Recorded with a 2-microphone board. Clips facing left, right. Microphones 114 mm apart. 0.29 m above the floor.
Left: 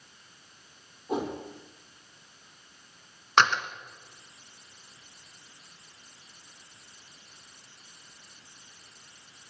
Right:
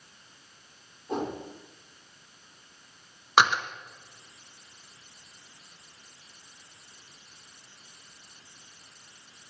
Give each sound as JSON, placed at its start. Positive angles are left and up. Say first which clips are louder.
{"t": 1.1, "sound": "a whoosh", "louder": "left 1 dB", "side_deg": 5, "distance_m": 6.0}
{"t": 3.4, "sound": "a door slam", "louder": "right 1 dB", "side_deg": -10, "distance_m": 1.7}